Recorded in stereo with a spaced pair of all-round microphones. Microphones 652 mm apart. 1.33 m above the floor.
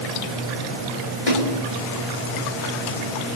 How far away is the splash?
About 4.5 m.